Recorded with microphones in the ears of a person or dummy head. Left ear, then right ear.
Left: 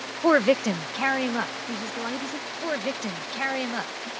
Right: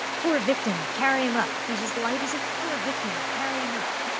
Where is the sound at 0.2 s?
45° left (ahead or behind); by 2.5 s 35° right (ahead or behind).